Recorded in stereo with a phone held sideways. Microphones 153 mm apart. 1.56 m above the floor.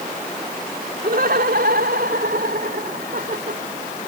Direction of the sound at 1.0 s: 80° right.